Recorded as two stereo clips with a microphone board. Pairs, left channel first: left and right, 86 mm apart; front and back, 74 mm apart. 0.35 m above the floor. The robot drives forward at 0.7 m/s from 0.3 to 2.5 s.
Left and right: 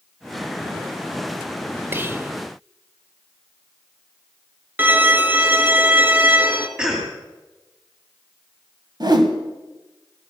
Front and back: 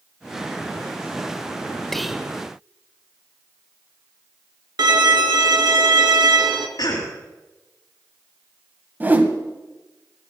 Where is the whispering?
80° right, 0.9 m; by 2.3 s 120° right, 0.9 m.